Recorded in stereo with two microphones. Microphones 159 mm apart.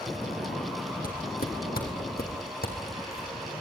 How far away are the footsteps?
About 3.5 m.